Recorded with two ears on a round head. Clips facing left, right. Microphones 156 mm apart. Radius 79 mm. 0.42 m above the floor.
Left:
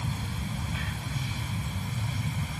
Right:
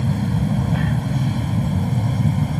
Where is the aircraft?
50° right (ahead or behind); by 2.6 s 45° right (ahead or behind).